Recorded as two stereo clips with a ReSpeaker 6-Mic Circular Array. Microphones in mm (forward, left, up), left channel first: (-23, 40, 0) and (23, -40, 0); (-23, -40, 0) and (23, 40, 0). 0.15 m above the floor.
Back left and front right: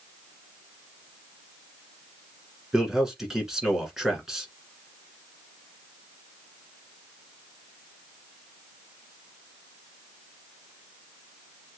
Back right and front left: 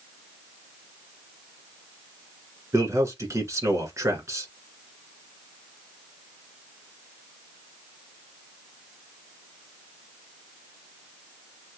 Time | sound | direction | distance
2.7 | a man speaking | 25° left | 1.9 m